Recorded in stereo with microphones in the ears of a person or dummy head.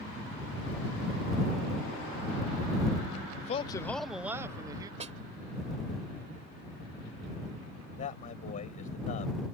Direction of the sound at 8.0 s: 40° left (ahead or behind).